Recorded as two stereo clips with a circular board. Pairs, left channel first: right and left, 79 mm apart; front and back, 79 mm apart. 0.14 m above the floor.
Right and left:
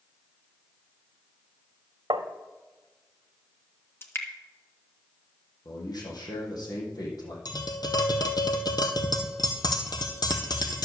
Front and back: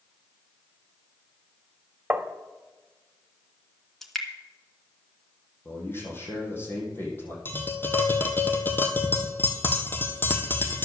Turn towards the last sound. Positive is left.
turn(degrees=-65)